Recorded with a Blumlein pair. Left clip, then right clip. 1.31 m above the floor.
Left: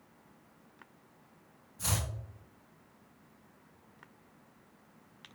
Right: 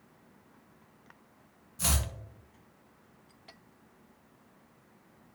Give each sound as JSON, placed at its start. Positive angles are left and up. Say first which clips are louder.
{"t": 1.8, "sound": "chopping", "louder": "right 4 dB", "azimuth_deg": -60, "distance_m": 1.5}